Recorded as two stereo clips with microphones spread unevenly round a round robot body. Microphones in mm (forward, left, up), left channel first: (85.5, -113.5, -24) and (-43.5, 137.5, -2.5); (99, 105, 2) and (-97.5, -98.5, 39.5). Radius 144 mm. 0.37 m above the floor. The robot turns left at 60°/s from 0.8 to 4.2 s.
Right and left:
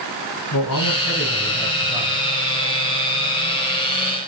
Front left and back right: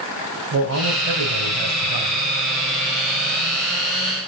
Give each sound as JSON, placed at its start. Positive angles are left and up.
{"t": 0.5, "sound": "a man speaking", "azimuth_deg": -95, "distance_m": 2.0}